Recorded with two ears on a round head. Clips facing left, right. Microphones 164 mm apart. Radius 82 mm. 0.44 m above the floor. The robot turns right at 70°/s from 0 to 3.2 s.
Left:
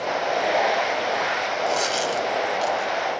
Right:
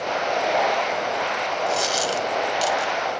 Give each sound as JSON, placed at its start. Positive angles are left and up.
{"t": 1.7, "sound": "a dropped coin", "side_deg": 5, "distance_m": 1.0}